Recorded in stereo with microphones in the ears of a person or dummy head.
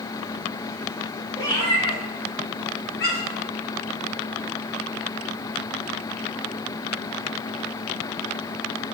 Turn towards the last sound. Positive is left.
turn(degrees=70)  # may be behind; listen again after turning